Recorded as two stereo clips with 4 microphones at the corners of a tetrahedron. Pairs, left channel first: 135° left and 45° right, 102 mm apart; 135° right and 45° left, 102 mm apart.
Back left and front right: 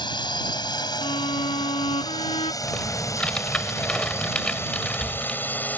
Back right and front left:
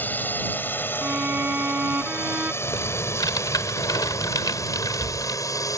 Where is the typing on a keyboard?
150° right.